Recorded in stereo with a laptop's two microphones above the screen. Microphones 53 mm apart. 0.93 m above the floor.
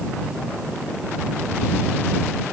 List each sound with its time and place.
Only background noise.